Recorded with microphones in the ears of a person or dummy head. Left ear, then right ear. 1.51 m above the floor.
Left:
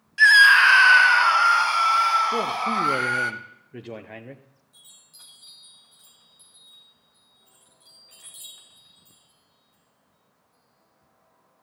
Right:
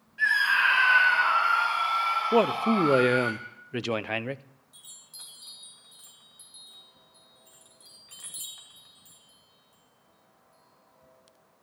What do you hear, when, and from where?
0.2 s a scream: 65° left (ahead or behind), 0.9 m; by 3.3 s 60° left (ahead or behind), 2 m
2.3 s a man speaking: 55° right (ahead or behind), 0.6 m
4.7 s a chime: 15° right (ahead or behind), 2.5 m